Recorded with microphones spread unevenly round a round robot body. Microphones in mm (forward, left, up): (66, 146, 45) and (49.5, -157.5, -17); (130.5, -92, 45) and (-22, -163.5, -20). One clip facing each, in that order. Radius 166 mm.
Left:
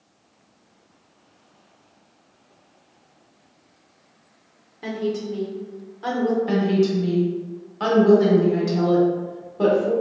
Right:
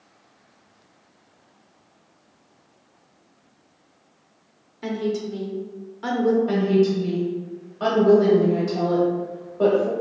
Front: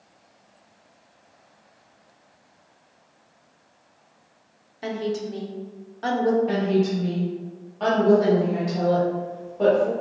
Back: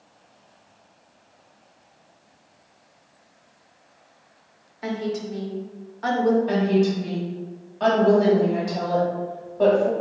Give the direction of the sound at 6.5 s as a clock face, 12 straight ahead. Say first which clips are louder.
Right 1 dB, back 2 dB; 7 o'clock.